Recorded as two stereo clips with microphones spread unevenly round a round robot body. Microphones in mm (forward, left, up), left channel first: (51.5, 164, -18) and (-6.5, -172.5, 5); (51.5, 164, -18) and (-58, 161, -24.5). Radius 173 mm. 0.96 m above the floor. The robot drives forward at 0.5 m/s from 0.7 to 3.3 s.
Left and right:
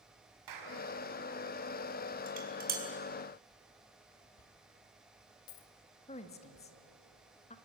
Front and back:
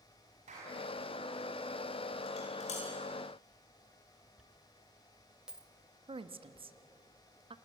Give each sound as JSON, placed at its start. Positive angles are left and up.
{"t": 0.5, "sound": "a clap", "azimuth_deg": -135, "distance_m": 5.0}
{"t": 2.3, "sound": "dishes clattering", "azimuth_deg": -35, "distance_m": 4.0}
{"t": 4.4, "sound": "a dropped coin", "azimuth_deg": 95, "distance_m": 2.0}
{"t": 6.1, "sound": "a woman speaking", "azimuth_deg": 150, "distance_m": 1.5}